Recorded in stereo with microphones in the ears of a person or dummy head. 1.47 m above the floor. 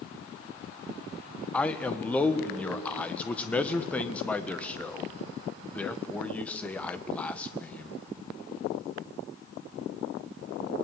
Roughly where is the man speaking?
Centre.